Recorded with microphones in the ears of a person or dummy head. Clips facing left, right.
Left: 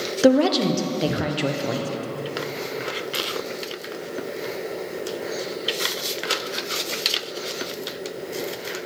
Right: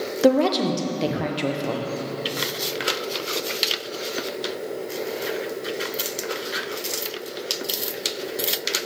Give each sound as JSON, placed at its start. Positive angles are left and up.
{"t": 0.2, "sound": "a woman speaking", "side_deg": 5, "distance_m": 0.8}